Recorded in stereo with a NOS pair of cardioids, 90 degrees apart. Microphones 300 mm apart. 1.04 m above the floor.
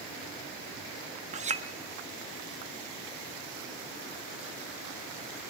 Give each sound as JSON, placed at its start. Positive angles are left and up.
{"t": 1.3, "sound": "a clink", "azimuth_deg": -25, "distance_m": 0.9}